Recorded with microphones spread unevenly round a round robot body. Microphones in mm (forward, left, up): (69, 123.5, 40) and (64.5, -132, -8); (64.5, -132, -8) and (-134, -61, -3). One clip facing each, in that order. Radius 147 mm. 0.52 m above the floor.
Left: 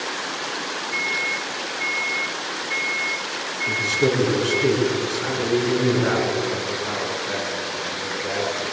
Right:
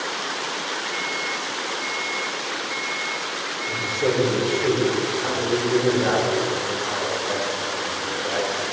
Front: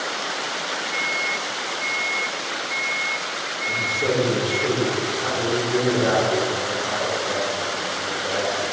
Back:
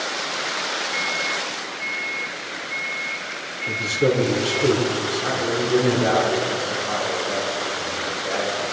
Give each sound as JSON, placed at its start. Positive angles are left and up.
{"t": 0.9, "sound": "a microwave", "azimuth_deg": 105, "distance_m": 1.2}
{"t": 3.7, "sound": "a man speaking", "azimuth_deg": 110, "distance_m": 5.5}
{"t": 5.2, "sound": "a man speaking", "azimuth_deg": 40, "distance_m": 8.0}